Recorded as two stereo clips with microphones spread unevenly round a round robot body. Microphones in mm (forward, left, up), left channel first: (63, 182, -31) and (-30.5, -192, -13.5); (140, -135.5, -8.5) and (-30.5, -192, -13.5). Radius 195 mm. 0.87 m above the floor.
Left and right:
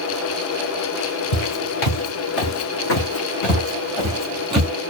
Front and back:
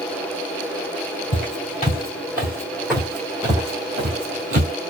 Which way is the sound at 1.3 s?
55° left.